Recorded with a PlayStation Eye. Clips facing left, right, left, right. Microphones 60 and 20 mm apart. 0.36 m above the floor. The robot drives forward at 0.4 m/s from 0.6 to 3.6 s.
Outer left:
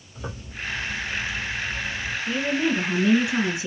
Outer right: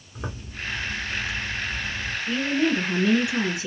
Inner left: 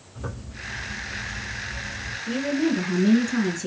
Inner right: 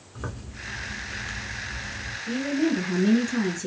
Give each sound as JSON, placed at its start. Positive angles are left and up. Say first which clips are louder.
{"t": 0.1, "sound": "a zipper", "louder": "even, inner left 1 dB", "side_deg": -50, "distance_m": 1.8}
{"t": 2.3, "sound": "a woman speaking", "louder": "outer right 1 dB, inner left 1 dB", "side_deg": 20, "distance_m": 1.8}